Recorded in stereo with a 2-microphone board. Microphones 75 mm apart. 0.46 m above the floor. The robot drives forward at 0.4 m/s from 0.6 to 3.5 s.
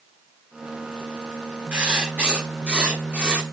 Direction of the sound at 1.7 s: 15° right (ahead or behind).